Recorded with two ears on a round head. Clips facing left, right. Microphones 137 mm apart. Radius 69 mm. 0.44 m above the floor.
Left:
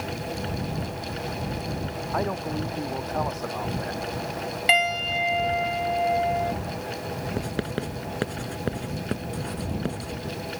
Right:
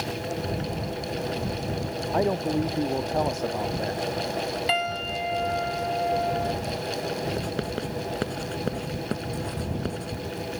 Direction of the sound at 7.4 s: Centre (ahead or behind).